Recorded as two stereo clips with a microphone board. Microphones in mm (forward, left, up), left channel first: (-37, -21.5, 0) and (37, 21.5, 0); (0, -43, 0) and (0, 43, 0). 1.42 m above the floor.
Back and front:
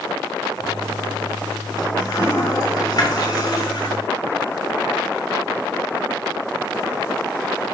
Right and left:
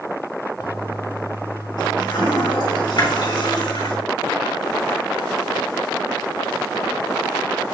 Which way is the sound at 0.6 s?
115° right.